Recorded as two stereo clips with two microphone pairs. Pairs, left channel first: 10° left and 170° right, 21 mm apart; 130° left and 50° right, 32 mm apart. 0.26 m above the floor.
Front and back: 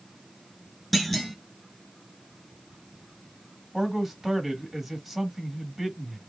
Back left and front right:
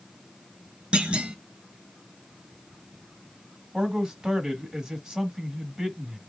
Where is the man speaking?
80° right, 1.3 m.